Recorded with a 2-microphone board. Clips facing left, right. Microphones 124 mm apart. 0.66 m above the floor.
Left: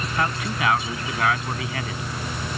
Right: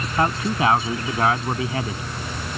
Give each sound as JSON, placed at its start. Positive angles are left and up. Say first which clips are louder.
{"t": 0.2, "sound": "a man speaking", "louder": "right 5 dB", "side_deg": -30}